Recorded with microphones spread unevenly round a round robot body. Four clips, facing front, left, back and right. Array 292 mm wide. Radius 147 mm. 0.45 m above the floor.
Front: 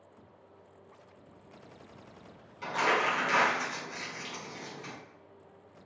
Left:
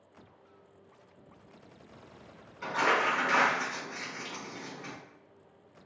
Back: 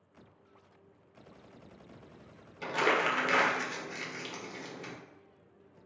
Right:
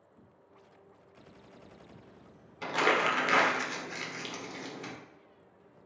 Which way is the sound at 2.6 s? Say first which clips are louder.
Even, even; 140° right.